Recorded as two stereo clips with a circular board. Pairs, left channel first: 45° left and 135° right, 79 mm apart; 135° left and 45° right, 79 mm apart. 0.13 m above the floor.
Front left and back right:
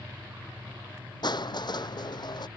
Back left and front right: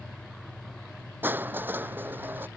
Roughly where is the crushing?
Ahead.